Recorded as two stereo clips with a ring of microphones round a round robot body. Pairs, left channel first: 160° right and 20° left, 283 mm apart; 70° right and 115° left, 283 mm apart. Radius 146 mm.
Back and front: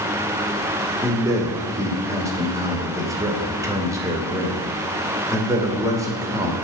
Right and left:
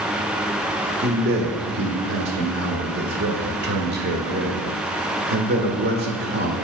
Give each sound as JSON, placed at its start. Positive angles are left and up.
{"t": 1.0, "sound": "a man speaking", "azimuth_deg": 95, "distance_m": 1.4}